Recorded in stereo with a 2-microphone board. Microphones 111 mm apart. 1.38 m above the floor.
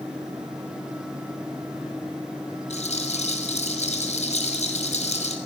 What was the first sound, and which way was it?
A rattle, 70° left (ahead or behind).